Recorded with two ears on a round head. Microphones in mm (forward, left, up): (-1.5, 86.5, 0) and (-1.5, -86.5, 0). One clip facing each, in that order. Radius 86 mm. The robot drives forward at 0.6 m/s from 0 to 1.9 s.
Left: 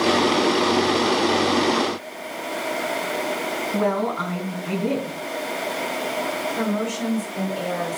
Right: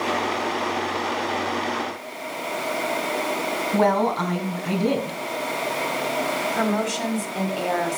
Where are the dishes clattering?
No dishes clattering in this recording.